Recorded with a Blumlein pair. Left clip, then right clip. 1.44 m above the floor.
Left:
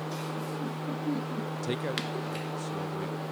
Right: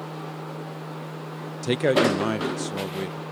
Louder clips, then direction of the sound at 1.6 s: Right 14 dB; 20° right.